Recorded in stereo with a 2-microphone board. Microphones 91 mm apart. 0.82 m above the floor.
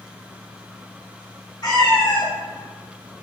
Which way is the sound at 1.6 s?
45° left (ahead or behind).